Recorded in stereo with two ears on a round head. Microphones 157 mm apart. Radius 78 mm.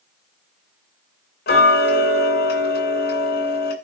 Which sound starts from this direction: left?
Ticking, at 1.5 s.